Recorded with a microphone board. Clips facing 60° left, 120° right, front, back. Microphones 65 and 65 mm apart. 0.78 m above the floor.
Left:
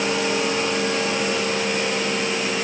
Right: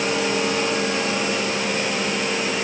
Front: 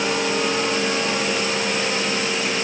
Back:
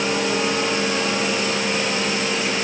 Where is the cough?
I don't hear a cough.